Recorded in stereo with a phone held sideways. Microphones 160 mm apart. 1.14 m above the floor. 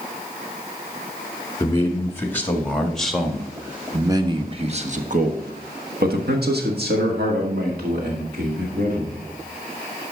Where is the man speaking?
20° left (ahead or behind), 2 m; by 9.3 s 70° right (ahead or behind), 3 m.